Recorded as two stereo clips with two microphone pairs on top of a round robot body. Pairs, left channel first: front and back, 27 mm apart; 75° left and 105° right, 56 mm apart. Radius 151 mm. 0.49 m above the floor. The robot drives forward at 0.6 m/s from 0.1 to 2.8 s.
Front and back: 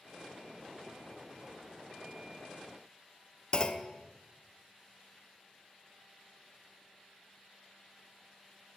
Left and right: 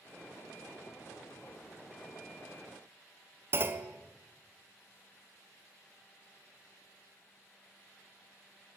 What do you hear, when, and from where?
3.5 s a clunk: 55° right, 1.0 m